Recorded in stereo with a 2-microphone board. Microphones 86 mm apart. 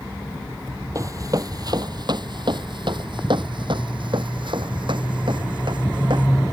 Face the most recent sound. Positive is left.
turn(degrees=-65)  # may be behind; listen again after turning